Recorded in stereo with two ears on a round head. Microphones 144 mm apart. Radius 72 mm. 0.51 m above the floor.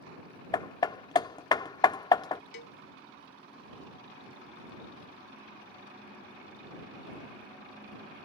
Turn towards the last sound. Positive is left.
turn(degrees=70)  # may be behind; listen again after turning